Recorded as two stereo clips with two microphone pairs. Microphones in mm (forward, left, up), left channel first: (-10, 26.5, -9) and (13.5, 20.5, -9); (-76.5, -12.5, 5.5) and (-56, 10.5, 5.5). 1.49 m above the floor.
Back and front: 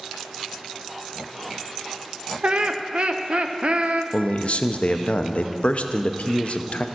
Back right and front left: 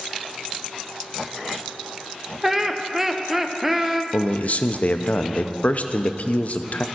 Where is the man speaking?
165° right, 0.6 m.